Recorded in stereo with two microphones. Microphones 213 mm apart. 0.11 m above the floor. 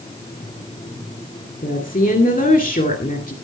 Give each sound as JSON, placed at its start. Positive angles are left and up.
{"t": 1.6, "sound": "a woman speaking", "side_deg": 40, "distance_m": 2.0}